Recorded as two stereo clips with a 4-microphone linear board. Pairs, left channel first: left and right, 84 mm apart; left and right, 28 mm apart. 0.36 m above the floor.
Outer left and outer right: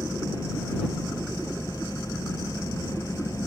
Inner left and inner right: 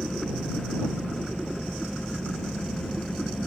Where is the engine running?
40° left (ahead or behind).